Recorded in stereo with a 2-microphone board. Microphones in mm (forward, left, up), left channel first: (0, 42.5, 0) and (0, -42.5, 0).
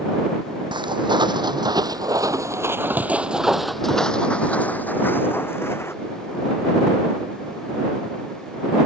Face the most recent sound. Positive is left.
turn(degrees=30)  # may be behind; listen again after turning